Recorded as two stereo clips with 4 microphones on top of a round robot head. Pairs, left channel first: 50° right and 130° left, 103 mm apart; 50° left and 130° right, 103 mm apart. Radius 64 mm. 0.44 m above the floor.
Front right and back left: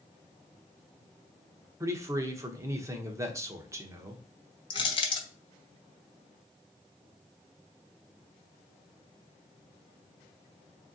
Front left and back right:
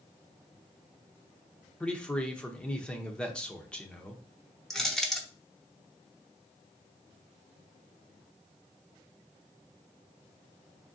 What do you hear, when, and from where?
1.8 s a man speaking: 120° left, 0.8 m
4.7 s crushing: 35° right, 1.1 m